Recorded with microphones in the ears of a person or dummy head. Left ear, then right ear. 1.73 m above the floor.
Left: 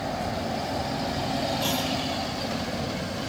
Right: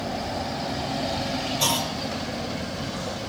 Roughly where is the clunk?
Right.